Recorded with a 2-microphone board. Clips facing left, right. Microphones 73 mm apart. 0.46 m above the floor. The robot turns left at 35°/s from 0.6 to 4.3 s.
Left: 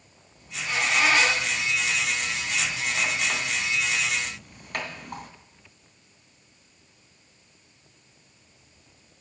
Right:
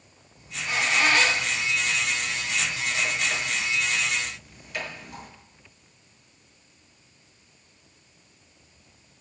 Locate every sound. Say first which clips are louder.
0.4 s a squeak: even; 15° right (ahead or behind), 2.5 m; by 5.3 s 60° left (ahead or behind), 2.5 m